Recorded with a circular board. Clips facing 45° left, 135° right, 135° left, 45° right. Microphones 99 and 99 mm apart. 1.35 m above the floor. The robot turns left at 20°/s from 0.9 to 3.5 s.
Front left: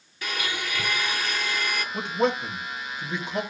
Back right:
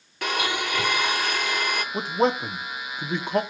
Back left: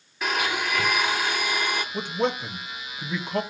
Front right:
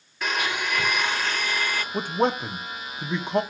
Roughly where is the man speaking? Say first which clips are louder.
Back right 2 dB, front right 5 dB; right.